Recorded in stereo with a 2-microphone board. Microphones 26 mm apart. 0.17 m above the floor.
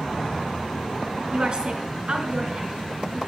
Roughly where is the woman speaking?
Right.